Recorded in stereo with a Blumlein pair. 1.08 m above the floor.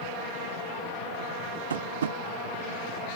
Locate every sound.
1.7 s tapping: 65° right